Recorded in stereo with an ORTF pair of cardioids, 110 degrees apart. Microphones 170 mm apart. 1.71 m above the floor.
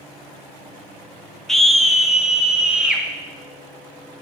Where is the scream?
Straight ahead, 1.3 m; by 3.0 s 5° right, 2.5 m.